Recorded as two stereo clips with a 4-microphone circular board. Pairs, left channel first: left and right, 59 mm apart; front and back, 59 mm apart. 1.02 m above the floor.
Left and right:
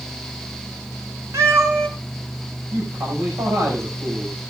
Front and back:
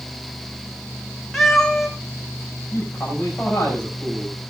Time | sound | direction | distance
1.3 | a cat meowing | 85° right | 3 m
2.7 | a man speaking | 70° right | 7 m